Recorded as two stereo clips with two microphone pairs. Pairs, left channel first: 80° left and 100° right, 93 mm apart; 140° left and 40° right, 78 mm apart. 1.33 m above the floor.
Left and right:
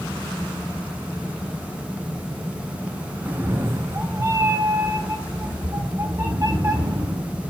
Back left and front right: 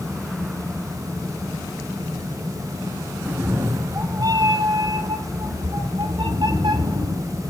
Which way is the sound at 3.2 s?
65° right.